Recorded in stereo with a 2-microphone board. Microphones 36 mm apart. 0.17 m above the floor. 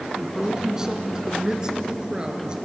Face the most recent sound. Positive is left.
turn(degrees=-25)  # may be behind; listen again after turning